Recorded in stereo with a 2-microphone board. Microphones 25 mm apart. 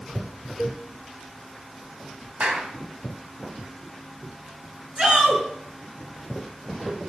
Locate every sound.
0.6 s a cowbell: 5° right (ahead or behind), 2 m
2.4 s a clap: 50° right (ahead or behind), 3 m
5.0 s a shout: 30° right (ahead or behind), 6 m